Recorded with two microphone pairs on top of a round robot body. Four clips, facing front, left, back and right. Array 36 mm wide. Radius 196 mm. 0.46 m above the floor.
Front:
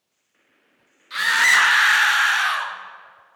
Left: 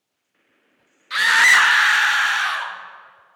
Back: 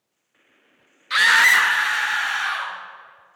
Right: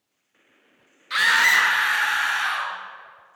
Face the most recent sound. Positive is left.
turn(degrees=30)